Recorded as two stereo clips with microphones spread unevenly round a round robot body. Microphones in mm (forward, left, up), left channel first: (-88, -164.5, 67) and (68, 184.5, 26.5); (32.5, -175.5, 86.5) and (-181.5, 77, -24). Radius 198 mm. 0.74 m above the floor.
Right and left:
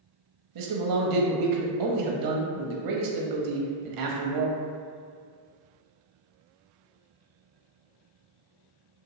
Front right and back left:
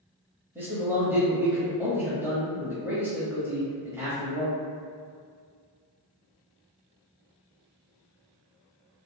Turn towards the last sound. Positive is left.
turn(degrees=60)